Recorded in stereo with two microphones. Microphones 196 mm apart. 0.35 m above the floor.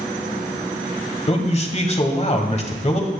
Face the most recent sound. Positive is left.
turn(degrees=35)  # may be behind; listen again after turning